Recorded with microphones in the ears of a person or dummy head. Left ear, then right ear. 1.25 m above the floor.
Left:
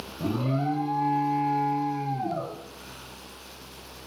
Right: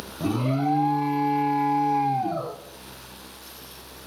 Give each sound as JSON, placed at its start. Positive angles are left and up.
{"t": 0.2, "sound": "an alarm", "side_deg": -20, "distance_m": 0.6}